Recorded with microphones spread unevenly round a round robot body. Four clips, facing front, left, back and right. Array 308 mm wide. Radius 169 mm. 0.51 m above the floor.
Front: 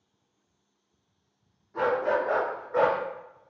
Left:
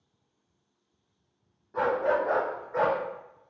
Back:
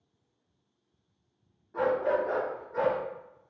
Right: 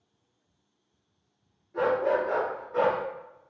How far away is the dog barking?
About 1.2 m.